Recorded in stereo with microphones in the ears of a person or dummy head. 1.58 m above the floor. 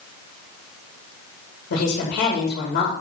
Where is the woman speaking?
75° left (ahead or behind), 3 m.